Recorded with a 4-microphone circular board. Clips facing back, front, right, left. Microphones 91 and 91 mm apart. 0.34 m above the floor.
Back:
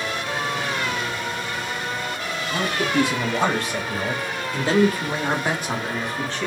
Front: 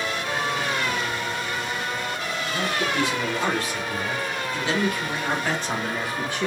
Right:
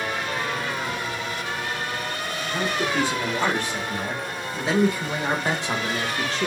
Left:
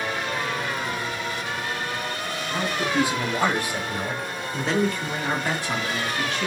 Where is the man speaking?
160° left, 1.9 m; by 6.5 s 65° right, 1.0 m.